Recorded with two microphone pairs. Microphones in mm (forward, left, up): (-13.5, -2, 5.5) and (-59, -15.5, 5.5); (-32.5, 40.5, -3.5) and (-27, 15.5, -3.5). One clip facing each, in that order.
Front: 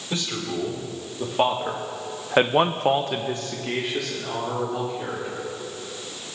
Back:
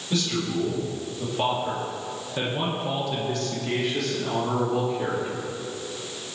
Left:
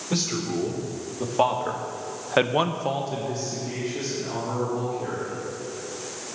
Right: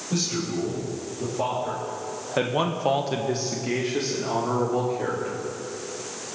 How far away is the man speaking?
About 4.5 m.